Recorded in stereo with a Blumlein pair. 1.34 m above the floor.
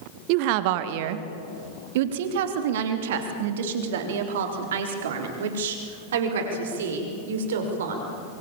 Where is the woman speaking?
45° right, 1.3 m; by 8.1 s 60° right, 5.5 m.